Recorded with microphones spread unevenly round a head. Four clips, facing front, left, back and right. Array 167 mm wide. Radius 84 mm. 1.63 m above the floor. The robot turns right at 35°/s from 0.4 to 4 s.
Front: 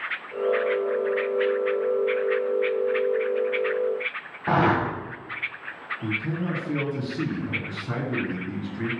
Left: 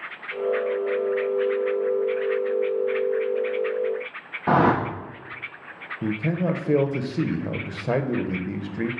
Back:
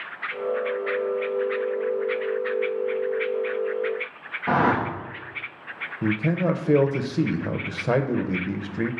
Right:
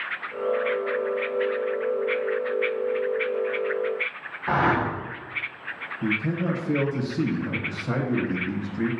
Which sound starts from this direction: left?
A whoosh, at 4.5 s.